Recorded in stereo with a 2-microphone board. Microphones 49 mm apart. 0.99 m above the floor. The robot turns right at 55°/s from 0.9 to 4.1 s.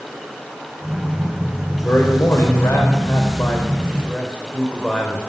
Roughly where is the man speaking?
Ahead left.